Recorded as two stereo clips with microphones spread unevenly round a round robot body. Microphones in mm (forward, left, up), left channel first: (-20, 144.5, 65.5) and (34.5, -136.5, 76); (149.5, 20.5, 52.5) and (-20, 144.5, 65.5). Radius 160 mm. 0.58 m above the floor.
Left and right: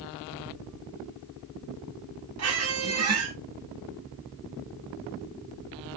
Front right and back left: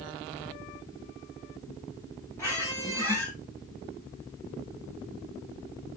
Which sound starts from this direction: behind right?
A squeak, at 2.4 s.